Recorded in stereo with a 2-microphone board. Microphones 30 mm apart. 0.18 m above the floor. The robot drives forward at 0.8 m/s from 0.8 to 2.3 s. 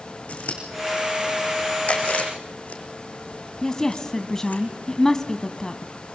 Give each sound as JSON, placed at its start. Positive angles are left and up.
{"t": 0.3, "sound": "scissors", "side_deg": 55, "distance_m": 4.5}
{"t": 1.9, "sound": "chewing", "side_deg": 50, "distance_m": 3.0}
{"t": 3.6, "sound": "a woman speaking", "side_deg": 20, "distance_m": 1.0}